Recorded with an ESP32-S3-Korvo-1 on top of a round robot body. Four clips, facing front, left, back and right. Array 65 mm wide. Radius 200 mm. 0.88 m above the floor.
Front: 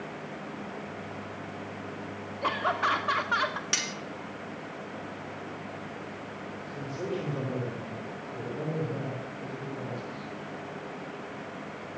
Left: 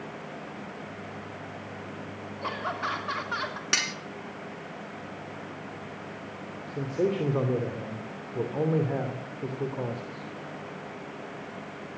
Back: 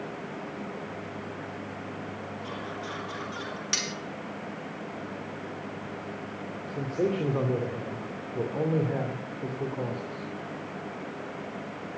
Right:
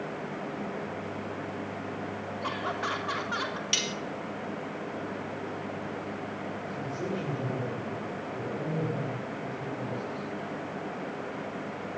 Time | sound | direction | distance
2.4 | laughter | 5° left | 3 m
3.7 | cutlery clinking | 85° left | 1.5 m
6.7 | a man speaking | 125° left | 3 m